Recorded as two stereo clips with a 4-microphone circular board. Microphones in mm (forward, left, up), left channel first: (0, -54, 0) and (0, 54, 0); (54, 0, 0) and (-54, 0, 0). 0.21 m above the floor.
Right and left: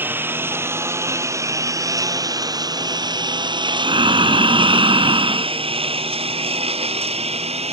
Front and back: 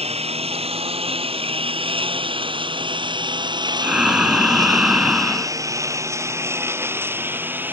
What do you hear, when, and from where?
0.0 s a lawn mower: 160° left; by 7.7 s 110° left
3.8 s breathing: 100° left